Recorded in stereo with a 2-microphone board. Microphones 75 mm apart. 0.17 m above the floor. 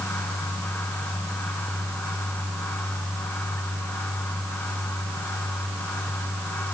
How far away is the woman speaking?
No woman speaking in this recording.